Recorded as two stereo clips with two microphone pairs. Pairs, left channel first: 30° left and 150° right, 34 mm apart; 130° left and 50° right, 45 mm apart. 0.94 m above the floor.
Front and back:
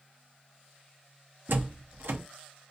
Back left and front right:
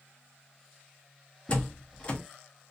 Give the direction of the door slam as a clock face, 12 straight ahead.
6 o'clock.